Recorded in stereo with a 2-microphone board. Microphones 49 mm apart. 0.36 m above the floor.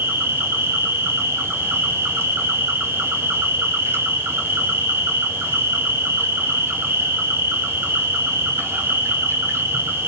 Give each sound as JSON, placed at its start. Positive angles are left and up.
{"t": 0.0, "sound": "an insect", "side_deg": -60, "distance_m": 1.0}